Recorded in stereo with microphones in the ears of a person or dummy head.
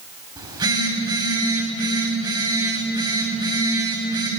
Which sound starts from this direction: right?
A phone buzzing, at 0.4 s.